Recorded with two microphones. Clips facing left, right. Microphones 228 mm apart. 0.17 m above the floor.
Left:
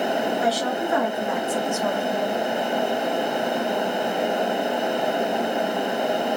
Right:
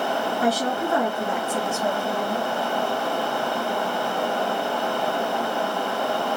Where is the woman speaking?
50° right (ahead or behind), 2.5 m; by 2.5 s 5° right (ahead or behind), 1.7 m.